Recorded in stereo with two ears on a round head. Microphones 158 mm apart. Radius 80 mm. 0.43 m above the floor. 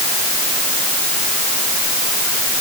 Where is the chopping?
I don't hear chopping.